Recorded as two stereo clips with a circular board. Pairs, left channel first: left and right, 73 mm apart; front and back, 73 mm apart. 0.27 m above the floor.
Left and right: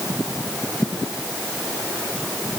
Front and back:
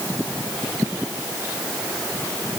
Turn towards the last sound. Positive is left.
No sound to turn to.